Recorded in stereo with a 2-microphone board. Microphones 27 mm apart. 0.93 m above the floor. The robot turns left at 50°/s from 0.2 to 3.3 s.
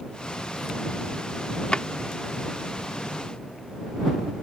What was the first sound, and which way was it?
A drawer, 40° left (ahead or behind).